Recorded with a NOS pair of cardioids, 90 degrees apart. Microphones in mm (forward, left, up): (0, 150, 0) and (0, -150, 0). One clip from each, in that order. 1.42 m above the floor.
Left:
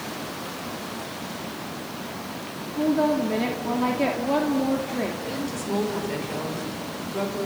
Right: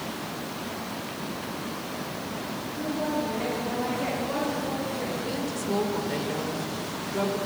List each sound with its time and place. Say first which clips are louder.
2.8 s a woman speaking: left 8 dB; 65° left, 2.5 m
5.3 s a woman speaking: even; straight ahead, 5.5 m